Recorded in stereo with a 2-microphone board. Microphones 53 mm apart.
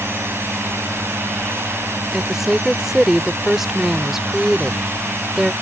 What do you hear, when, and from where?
0.0 s a drone: 50° right (ahead or behind)
2.1 s a woman speaking: 5° right (ahead or behind)